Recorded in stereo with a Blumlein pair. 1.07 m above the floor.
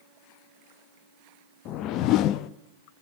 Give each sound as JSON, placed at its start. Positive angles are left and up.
{"t": 1.6, "sound": "a whoosh", "azimuth_deg": 35, "distance_m": 0.7}